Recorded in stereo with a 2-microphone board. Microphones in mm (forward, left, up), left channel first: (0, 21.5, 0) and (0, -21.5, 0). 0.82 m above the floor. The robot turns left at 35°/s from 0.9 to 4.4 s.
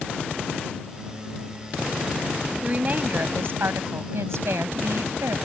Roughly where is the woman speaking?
Ahead right.